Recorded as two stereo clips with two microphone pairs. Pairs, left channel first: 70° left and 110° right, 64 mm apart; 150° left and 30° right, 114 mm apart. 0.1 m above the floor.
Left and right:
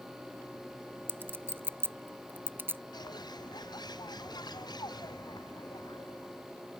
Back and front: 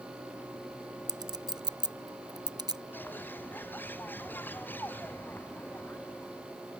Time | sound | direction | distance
1.1 | a clink | 65° right | ?
2.9 | a bird | 75° left | ?